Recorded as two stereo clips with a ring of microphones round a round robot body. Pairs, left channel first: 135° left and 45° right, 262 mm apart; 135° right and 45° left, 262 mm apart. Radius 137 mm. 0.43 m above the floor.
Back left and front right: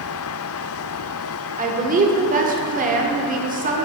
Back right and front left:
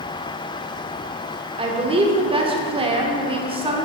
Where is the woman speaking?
10° right, 1.2 m.